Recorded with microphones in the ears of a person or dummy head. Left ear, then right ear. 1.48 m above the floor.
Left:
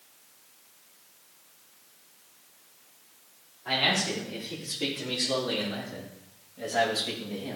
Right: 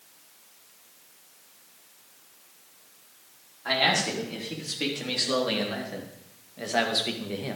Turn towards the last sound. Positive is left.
turn(degrees=-60)  # may be behind; listen again after turning